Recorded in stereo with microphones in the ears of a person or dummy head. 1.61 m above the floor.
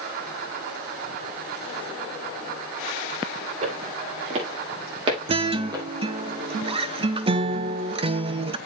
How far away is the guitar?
About 0.6 m.